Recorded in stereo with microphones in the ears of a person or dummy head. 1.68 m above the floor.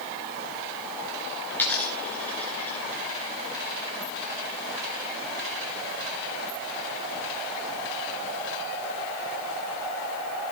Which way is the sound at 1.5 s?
10° left (ahead or behind).